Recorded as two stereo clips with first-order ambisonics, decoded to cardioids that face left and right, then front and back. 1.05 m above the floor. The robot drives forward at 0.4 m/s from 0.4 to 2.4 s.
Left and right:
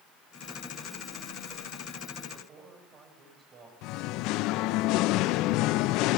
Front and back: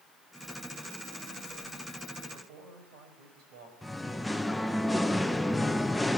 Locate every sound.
2.3 s a man speaking: 155° right, 6 m
3.8 s singing: 85° left, 0.5 m